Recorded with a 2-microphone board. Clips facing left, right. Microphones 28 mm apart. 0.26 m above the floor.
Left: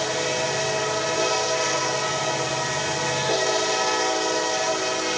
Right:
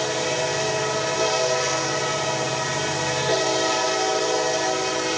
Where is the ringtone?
I don't hear a ringtone.